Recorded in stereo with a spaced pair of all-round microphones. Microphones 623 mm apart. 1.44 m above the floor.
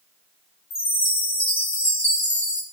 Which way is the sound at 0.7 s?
65° left (ahead or behind).